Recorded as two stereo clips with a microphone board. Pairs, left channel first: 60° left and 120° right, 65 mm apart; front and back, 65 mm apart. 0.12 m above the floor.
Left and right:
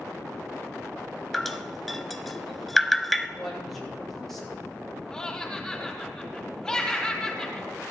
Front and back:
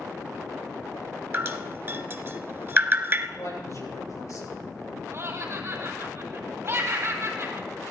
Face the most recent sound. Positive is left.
turn(degrees=140)